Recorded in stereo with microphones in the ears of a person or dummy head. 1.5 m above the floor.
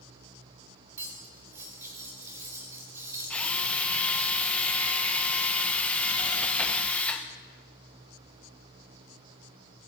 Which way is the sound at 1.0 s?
15° right (ahead or behind).